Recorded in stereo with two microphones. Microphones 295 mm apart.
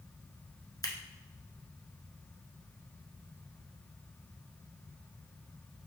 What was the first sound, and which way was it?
Scissors, 15° left (ahead or behind).